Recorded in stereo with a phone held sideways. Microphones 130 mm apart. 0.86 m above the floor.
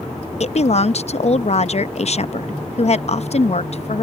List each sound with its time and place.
0.4 s a woman speaking: 55° left (ahead or behind)